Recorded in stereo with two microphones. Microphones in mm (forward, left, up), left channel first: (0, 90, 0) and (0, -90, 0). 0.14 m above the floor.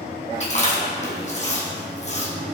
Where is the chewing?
40° left (ahead or behind), 2 m.